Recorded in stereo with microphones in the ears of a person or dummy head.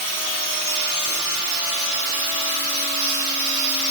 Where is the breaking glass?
I don't hear breaking glass.